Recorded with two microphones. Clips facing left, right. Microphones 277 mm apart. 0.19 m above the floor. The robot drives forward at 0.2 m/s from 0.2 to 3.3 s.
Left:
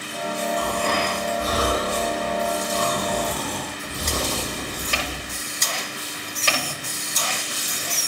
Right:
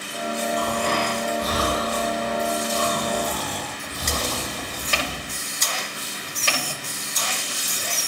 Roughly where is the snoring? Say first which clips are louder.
Even; left.